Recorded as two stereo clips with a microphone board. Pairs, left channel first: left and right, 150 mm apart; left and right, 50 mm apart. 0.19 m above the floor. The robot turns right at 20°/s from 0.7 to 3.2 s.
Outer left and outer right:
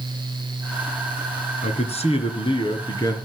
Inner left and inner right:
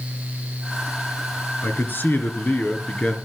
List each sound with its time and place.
1.6 s a man speaking: 120° left, 2.5 m; by 3.2 s 155° left, 2.5 m